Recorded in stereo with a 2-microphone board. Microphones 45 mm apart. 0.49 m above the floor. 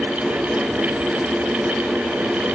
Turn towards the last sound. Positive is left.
No sound to turn to.